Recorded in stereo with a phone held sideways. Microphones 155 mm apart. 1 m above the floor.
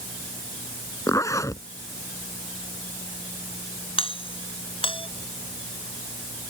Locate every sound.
1.1 s a zipper: 20° left (ahead or behind)
4.0 s a doorbell: 35° left (ahead or behind)